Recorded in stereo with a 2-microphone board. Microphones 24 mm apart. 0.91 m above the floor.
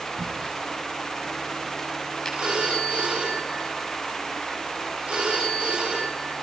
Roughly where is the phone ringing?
Right.